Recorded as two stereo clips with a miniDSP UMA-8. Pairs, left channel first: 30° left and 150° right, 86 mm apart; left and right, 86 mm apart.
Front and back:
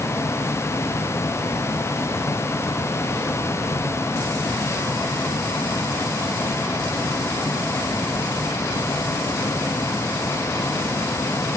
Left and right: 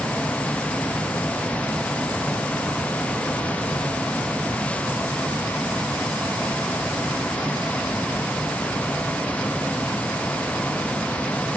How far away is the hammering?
No hammering in this recording.